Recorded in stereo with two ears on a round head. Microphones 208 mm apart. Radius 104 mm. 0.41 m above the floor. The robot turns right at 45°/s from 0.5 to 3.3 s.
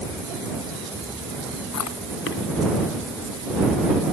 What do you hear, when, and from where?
1.7 s chewing: 80° left; by 2.4 s 50° left (ahead or behind)